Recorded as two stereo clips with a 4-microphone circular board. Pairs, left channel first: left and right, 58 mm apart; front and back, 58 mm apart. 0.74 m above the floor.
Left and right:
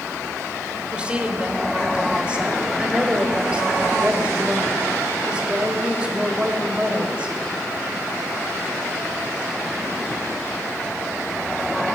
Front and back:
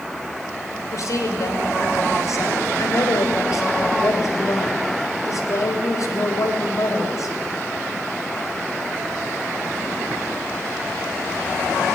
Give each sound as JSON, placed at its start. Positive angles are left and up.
{"t": 0.9, "sound": "a woman speaking", "azimuth_deg": -20, "distance_m": 3.5}